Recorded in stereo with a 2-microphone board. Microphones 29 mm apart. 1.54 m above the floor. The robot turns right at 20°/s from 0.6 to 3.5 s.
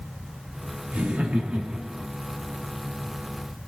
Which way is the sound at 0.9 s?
60° right (ahead or behind).